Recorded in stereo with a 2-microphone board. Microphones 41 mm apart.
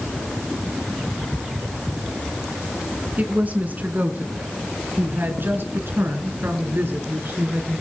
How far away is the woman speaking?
About 3 m.